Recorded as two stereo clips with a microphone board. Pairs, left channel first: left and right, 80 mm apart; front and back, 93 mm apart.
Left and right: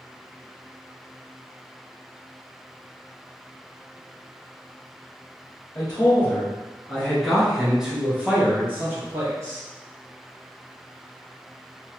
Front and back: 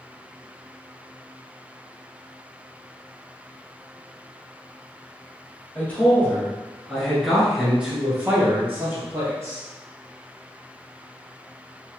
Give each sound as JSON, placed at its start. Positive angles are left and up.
{"t": 5.8, "sound": "a man speaking", "azimuth_deg": 55, "distance_m": 1.4}